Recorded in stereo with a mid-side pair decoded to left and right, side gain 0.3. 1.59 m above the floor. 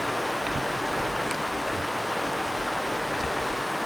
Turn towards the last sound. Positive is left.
turn(degrees=10)